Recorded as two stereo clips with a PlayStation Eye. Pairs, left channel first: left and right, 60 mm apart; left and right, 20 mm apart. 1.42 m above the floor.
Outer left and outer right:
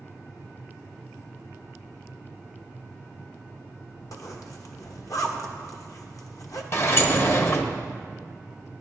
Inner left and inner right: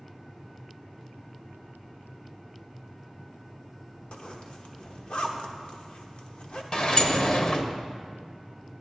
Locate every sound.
4.1 s a zipper: 65° left (ahead or behind), 1.0 m
6.7 s a sliding door: 45° left (ahead or behind), 0.8 m